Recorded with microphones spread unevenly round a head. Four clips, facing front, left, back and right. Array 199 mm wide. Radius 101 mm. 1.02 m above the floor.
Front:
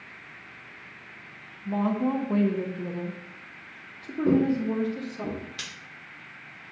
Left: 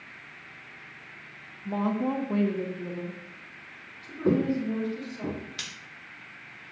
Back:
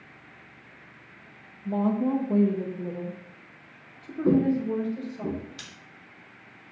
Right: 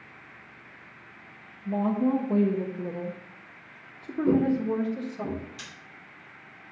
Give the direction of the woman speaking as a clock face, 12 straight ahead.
7 o'clock.